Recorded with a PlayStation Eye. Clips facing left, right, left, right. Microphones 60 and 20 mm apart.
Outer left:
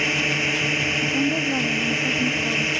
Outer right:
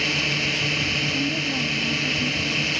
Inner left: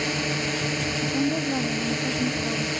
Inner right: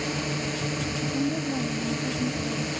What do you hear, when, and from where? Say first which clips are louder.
0.0 s a drone: outer left 2 dB, inner left 3 dB; 20° left (ahead or behind)
1.0 s a woman speaking: outer left 3 dB, inner left 2 dB; 25° left (ahead or behind)